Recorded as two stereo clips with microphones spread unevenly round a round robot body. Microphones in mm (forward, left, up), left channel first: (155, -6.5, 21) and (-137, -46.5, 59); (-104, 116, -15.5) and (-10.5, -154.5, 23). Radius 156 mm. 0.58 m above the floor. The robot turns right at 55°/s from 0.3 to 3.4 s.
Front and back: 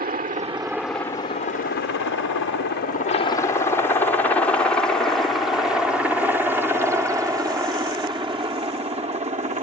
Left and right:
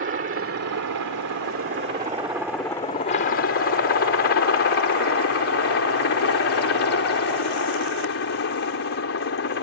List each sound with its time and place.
0.0 s a helicopter: 110° right; by 9.6 s 125° left